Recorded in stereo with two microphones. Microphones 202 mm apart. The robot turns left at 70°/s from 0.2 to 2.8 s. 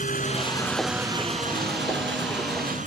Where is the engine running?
45° left; by 2.9 s 140° right.